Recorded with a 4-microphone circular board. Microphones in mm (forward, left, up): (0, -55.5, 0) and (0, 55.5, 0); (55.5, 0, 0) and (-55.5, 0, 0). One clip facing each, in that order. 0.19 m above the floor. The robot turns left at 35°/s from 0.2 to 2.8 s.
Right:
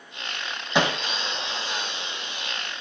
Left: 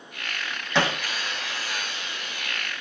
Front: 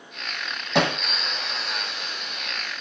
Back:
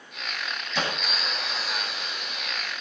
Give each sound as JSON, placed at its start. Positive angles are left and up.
{"t": 0.8, "sound": "hammering", "azimuth_deg": -20, "distance_m": 3.0}